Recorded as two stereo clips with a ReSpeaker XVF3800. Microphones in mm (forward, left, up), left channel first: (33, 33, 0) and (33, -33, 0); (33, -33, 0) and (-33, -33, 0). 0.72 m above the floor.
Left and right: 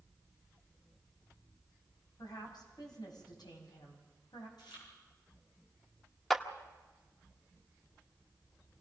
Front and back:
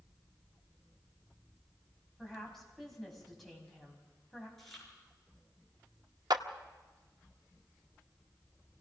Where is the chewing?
85° left, 7.5 m.